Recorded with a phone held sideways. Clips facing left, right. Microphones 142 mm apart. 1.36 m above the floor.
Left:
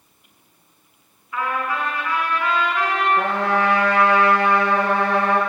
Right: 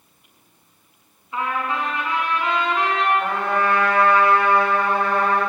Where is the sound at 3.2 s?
80° left, 6 m.